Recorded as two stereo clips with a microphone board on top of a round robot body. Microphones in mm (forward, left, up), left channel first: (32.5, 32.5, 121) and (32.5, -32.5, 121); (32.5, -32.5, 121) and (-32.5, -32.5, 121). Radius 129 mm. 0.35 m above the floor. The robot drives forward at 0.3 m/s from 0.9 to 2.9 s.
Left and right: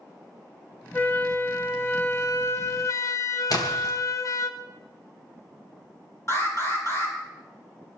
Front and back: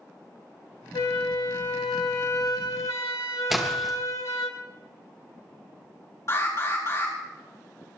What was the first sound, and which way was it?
A flute, 25° left.